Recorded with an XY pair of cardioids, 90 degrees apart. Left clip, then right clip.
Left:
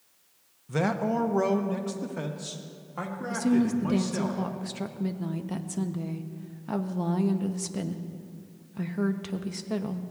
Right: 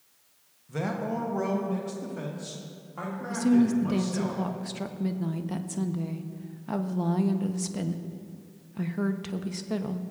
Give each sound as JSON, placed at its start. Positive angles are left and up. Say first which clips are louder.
{"t": 0.7, "sound": "a man speaking", "louder": "left 4 dB", "azimuth_deg": 55, "distance_m": 0.8}
{"t": 3.3, "sound": "a woman speaking", "louder": "right 2 dB", "azimuth_deg": 0, "distance_m": 0.7}